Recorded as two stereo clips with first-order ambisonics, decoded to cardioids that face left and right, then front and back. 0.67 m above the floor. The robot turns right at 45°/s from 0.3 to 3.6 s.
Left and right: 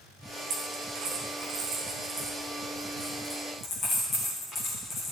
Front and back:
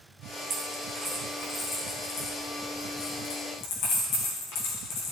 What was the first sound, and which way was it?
A dropped coin, 125° right.